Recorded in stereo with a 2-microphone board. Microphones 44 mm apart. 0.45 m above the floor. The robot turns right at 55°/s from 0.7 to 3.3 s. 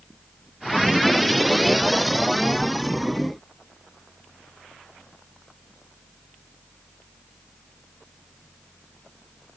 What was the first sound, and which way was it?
Only background noise.